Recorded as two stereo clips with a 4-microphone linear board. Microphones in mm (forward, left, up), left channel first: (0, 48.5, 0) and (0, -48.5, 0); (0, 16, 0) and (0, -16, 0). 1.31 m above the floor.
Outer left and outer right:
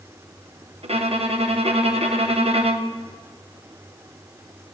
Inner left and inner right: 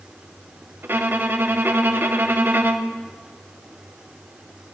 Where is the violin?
75° right (ahead or behind), 1.1 m.